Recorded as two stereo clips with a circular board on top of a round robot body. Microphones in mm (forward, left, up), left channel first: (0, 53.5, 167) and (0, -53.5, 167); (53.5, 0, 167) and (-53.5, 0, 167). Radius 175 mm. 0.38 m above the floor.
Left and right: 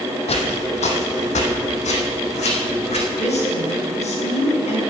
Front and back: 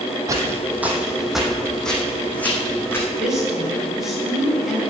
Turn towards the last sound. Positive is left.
turn(degrees=95)